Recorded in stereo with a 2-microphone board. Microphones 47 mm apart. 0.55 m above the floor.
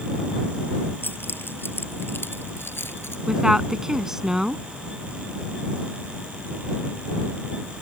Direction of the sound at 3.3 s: 15° right (ahead or behind).